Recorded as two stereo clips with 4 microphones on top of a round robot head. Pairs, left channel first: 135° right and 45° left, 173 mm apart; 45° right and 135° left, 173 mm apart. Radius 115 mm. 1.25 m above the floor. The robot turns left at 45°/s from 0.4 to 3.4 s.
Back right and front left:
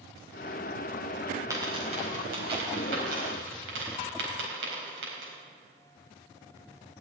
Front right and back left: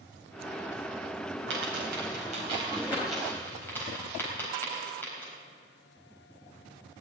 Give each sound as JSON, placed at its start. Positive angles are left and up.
{"t": 1.5, "sound": "a dropped coin", "azimuth_deg": 120, "distance_m": 4.0}